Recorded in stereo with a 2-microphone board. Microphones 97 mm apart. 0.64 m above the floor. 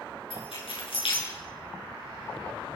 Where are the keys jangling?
65° left (ahead or behind), 7.5 m.